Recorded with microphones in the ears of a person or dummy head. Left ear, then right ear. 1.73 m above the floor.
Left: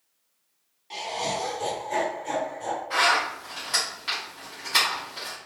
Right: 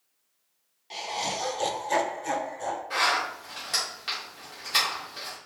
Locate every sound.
0.9 s laughter: 15° right (ahead or behind), 0.9 m; by 2.8 s 55° right (ahead or behind), 1.1 m
2.9 s a zipper: 10° right (ahead or behind), 1.5 m